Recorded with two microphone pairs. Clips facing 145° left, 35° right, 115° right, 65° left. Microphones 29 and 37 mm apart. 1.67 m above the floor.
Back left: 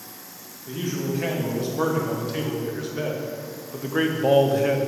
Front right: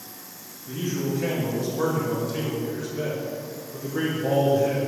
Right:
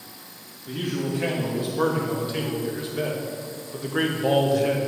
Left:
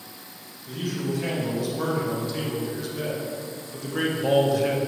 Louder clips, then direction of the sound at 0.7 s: Even, right 1 dB; 160° right.